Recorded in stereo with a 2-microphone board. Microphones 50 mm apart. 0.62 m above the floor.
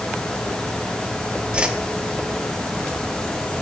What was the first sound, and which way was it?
A whoosh, 20° right (ahead or behind).